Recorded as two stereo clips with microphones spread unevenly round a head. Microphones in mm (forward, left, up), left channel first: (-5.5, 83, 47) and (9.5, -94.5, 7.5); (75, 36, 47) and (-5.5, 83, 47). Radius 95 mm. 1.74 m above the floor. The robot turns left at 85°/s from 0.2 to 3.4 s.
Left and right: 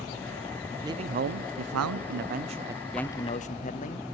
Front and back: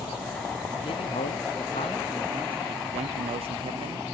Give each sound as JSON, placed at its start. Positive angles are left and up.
{"t": 0.8, "sound": "a man speaking", "azimuth_deg": -5, "distance_m": 0.6}